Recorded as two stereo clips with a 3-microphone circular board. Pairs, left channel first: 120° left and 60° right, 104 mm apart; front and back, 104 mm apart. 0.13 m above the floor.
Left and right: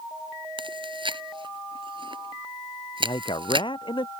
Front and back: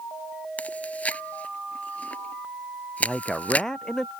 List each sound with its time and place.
0.6 s chewing: 75° right
3.0 s a man speaking: 85° left